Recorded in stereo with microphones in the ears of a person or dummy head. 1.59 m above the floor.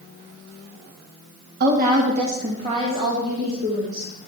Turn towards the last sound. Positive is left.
turn(degrees=-20)  # may be behind; listen again after turning